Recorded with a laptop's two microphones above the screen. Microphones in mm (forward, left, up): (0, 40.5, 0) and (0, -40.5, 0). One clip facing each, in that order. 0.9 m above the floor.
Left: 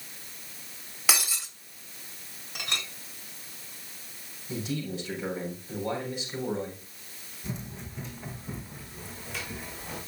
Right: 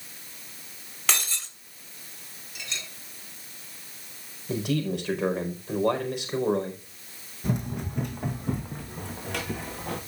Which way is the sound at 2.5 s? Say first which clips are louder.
Left 4 dB; 60° left (ahead or behind).